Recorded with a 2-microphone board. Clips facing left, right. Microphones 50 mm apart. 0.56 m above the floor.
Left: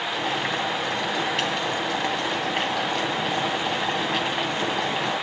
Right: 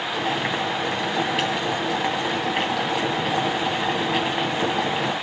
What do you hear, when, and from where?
0.1 s boiling: 5° right (ahead or behind), 2.5 m